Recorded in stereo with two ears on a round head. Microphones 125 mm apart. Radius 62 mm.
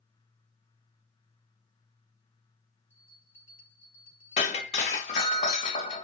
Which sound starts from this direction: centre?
A bell, at 2.9 s.